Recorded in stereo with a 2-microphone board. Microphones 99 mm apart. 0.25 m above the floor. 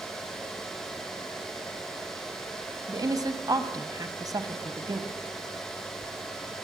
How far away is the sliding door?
I don't hear a sliding door.